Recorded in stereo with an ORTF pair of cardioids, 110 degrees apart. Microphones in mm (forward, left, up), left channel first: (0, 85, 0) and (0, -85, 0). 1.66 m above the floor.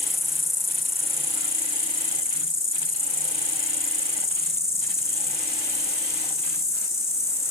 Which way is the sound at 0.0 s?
15° left.